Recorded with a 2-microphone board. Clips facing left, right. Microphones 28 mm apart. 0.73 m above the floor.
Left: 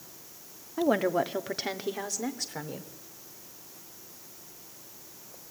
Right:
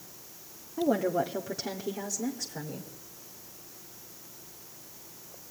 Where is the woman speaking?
50° left (ahead or behind), 1.1 m; by 2.9 s 65° left (ahead or behind), 2.5 m.